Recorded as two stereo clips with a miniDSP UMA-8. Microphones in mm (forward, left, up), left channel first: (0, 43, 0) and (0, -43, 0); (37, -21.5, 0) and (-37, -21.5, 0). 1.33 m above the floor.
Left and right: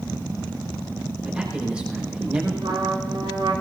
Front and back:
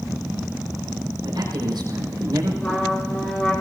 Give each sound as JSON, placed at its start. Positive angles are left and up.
{"t": 1.2, "sound": "a man speaking", "azimuth_deg": -170, "distance_m": 5.0}
{"t": 2.6, "sound": "a trumpet", "azimuth_deg": -65, "distance_m": 9.0}